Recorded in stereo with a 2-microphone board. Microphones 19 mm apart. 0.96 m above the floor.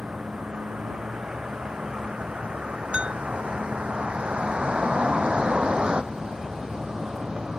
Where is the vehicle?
85° right; by 7.6 s 40° right (ahead or behind).